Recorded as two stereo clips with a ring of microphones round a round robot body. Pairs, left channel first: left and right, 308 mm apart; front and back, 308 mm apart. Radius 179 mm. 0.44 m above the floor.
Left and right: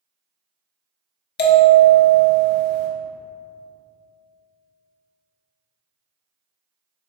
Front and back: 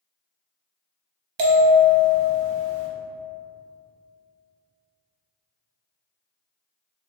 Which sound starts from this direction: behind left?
A bell, at 1.4 s.